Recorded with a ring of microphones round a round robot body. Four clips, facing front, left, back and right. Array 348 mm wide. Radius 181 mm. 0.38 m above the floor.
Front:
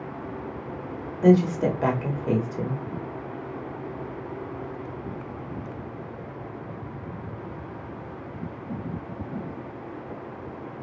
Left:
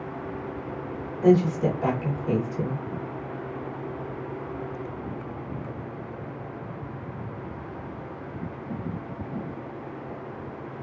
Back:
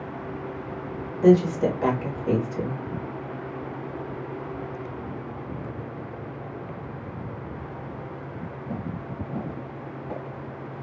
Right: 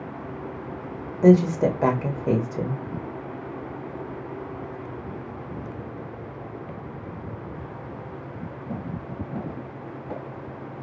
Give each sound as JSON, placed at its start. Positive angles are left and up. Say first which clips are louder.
{"t": 1.2, "sound": "a woman speaking", "louder": "right 3 dB, back 1 dB", "azimuth_deg": -75, "distance_m": 1.4}